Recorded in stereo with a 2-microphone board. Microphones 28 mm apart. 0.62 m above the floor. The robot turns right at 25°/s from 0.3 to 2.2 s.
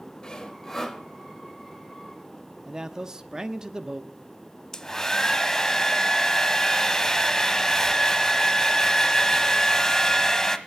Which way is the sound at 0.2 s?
25° left (ahead or behind).